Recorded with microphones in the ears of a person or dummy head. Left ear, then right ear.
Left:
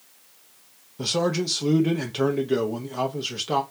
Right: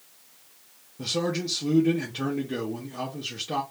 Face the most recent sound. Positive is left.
turn(degrees=60)  # may be behind; listen again after turning